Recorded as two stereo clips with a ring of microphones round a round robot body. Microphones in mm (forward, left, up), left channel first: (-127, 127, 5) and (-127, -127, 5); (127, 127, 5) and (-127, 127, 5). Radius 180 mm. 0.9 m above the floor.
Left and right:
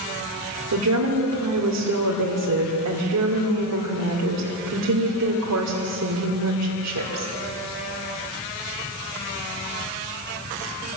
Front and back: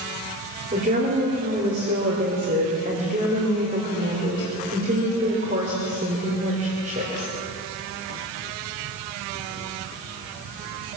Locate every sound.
0.7 s a woman speaking: 110° right, 2.5 m